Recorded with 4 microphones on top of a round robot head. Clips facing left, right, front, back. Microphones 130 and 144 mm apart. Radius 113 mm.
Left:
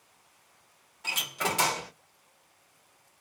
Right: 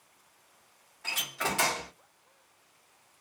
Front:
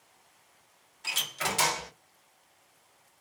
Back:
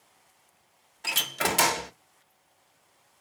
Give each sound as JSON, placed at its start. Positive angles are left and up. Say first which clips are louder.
{"t": 1.0, "sound": "a door slam", "louder": "left 2 dB, back 5 dB", "azimuth_deg": 160, "distance_m": 0.8}